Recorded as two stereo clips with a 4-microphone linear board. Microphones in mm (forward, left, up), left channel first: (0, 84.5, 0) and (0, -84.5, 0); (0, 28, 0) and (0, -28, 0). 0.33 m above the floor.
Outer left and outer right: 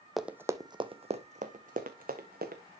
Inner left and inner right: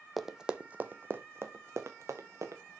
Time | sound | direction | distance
0.2 | running footsteps | centre (ahead or behind) | 0.6 m